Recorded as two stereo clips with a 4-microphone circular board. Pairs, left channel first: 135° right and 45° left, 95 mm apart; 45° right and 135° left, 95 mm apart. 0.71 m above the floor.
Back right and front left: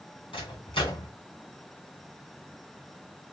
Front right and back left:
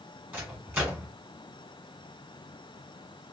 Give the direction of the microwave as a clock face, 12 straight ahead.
5 o'clock.